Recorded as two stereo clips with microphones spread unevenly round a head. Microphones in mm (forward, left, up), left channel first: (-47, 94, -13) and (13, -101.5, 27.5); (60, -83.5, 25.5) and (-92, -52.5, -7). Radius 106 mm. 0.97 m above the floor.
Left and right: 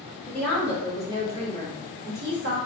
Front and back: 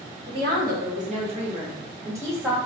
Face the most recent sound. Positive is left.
turn(degrees=-110)